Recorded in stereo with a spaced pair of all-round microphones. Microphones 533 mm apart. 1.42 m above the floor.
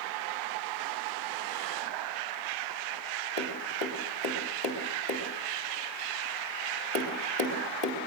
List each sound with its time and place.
3.4 s tapping: 50° left (ahead or behind), 3.5 m